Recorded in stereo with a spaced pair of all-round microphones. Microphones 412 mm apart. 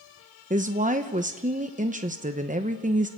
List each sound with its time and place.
0.5 s a woman speaking: 20° right (ahead or behind), 1.0 m